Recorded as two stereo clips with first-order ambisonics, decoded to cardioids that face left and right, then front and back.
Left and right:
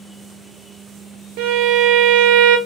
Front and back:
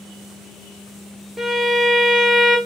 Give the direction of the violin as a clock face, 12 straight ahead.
3 o'clock.